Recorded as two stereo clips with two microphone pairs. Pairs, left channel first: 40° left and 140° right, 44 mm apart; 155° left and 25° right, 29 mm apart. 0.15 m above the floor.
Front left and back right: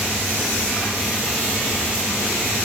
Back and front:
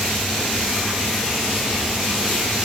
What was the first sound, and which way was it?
Only background noise.